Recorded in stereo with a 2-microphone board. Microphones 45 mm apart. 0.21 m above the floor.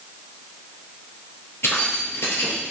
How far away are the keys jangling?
About 2.5 m.